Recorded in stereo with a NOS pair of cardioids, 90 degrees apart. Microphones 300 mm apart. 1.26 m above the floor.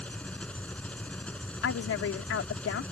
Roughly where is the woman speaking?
Ahead left.